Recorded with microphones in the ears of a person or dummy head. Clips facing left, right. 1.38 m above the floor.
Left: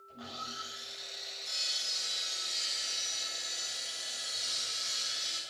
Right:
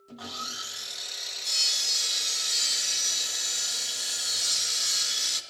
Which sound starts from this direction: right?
Sawing, at 0.1 s.